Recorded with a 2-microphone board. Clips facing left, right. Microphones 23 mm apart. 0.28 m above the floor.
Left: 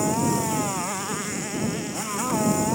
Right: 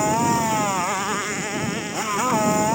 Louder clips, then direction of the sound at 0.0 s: Right 4 dB; 25° right (ahead or behind).